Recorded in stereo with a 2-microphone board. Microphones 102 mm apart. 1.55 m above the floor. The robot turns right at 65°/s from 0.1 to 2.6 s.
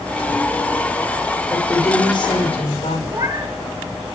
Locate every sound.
1.5 s a woman speaking: 10° left, 5 m; by 3.0 s 80° left, 5 m
3.1 s a cat meowing: 30° right (ahead or behind), 4 m